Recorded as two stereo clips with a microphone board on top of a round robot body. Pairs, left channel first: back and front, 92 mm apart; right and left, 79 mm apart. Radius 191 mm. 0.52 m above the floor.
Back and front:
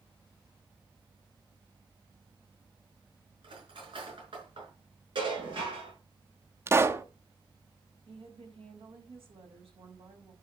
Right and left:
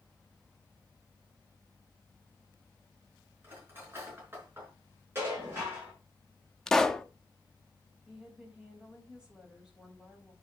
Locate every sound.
3.4 s cutlery clinking: 25° left, 5 m
5.2 s dishes clattering: 30° left, 6.5 m
6.7 s a pop: 15° right, 1.1 m
8.1 s a woman speaking: 10° left, 4.5 m